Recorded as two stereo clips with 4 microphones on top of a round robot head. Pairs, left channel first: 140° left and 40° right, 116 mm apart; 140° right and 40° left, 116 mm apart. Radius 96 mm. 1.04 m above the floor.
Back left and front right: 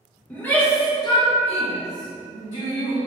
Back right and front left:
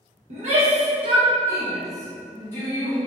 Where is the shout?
60° left, 0.9 m; by 3.0 s 160° left, 1.1 m.